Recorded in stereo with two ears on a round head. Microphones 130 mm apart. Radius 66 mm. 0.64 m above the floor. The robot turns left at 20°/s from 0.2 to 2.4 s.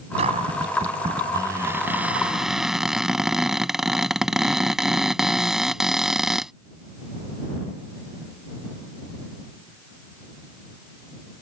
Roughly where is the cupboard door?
Behind right.